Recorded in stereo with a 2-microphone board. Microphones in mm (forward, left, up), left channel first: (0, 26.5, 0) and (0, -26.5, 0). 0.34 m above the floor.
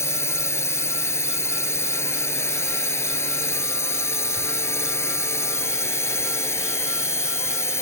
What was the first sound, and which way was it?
A drone, 60° left (ahead or behind).